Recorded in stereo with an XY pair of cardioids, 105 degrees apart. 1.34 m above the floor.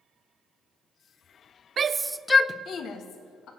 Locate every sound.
1.8 s a shout: 45° right, 0.6 m; by 3.5 s 75° left, 1.6 m